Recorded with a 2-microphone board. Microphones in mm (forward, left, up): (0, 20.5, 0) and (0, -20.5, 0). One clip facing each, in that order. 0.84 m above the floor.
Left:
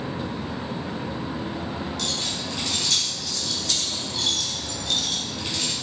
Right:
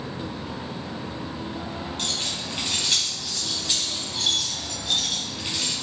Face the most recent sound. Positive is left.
turn(degrees=0)  # may be behind; listen again after turning